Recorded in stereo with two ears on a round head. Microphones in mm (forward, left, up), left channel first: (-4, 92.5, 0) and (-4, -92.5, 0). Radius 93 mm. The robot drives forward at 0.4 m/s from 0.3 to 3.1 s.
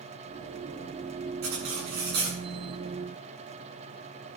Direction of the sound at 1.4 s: 80° right.